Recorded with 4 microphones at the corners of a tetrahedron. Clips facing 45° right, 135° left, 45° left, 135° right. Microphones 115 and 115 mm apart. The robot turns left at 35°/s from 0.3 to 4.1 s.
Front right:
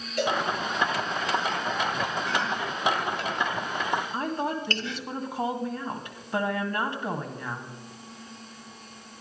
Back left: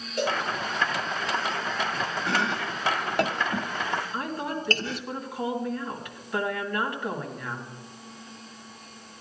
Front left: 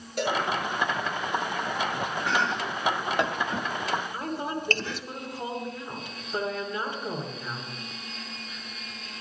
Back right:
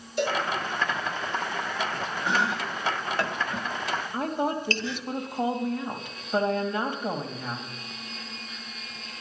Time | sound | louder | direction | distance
0.2 | a cowbell | front right 1 dB, back right 1 dB | 70° left | 7 m
2.3 | chopping | back left 1 dB, back right 2 dB | 150° left | 0.6 m
4.1 | a woman speaking | front right 2 dB, back right 4 dB | 105° right | 2 m